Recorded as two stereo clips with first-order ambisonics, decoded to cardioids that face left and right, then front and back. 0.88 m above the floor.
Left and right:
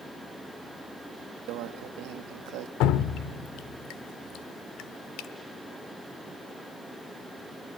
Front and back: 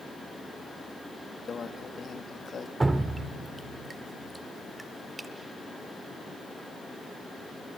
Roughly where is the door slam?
No door slam in this recording.